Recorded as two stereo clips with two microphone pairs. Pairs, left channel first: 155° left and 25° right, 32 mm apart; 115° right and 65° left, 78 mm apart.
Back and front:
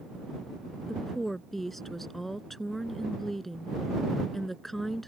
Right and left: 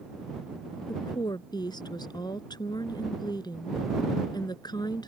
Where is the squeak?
No squeak in this recording.